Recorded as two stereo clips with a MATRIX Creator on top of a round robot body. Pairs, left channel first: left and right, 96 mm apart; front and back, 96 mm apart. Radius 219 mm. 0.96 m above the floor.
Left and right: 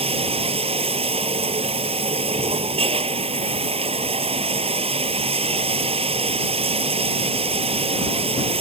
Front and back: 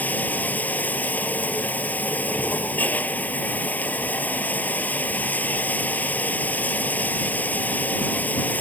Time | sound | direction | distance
0.0 | running water | 75° right | ?